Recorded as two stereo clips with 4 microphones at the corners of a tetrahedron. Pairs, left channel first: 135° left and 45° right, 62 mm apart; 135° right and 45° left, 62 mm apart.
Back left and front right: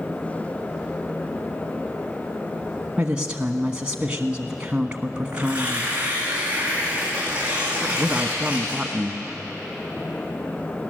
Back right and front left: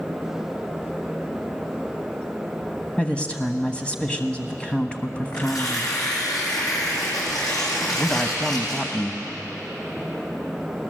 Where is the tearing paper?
115° right, 7.5 m.